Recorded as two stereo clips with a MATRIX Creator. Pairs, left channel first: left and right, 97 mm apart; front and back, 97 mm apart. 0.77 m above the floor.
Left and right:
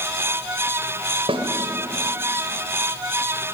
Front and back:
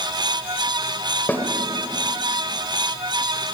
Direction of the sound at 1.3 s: 70° right.